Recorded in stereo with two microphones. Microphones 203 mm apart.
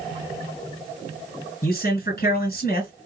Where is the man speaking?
50° left (ahead or behind), 2.5 m.